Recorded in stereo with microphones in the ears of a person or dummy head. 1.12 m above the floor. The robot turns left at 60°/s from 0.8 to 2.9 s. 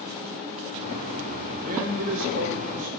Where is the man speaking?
35° right, 1.0 m; by 2.9 s 115° right, 1.0 m.